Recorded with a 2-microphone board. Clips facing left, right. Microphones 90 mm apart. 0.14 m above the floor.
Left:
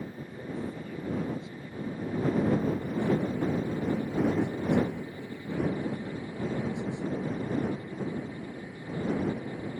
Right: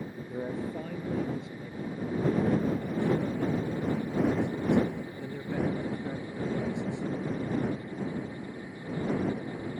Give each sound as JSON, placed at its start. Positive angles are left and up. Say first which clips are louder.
{"t": 0.3, "sound": "a man speaking", "louder": "right 4 dB", "side_deg": -55}